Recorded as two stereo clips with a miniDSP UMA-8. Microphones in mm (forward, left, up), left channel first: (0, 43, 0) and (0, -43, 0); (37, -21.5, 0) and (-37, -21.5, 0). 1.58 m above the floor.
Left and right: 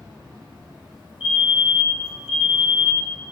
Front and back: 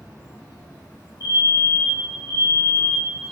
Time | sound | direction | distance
0.0 | an insect | 75° right | 1.9 m
1.2 | a fire alarm | 25° right | 0.9 m